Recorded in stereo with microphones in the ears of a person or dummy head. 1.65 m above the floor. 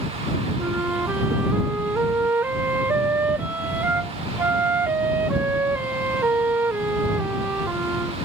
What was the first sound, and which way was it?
A flute, 15° right (ahead or behind).